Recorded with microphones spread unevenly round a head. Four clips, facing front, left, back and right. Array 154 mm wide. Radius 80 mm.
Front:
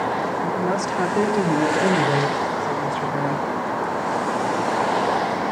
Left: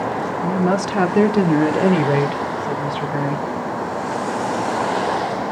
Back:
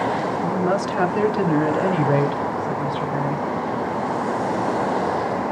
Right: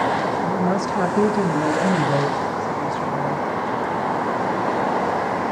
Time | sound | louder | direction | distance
0.4 | a woman speaking | left 2 dB, back 1 dB | 100° left | 2.5 m